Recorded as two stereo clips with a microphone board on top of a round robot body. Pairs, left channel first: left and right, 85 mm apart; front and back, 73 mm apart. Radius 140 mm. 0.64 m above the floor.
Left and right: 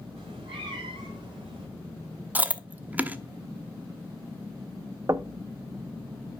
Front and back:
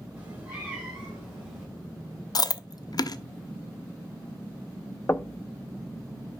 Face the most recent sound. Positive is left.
turn(degrees=-50)